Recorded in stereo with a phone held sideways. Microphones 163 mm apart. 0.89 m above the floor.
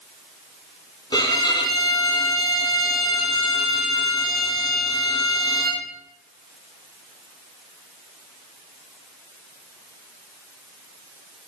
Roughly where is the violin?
Left.